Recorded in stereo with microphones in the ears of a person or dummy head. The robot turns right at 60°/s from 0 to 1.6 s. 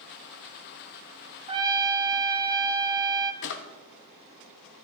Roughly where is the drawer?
Left.